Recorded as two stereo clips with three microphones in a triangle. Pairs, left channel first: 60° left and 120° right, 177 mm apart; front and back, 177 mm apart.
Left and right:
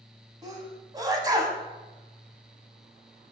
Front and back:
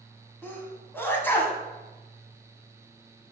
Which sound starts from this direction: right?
A sneeze, at 0.4 s.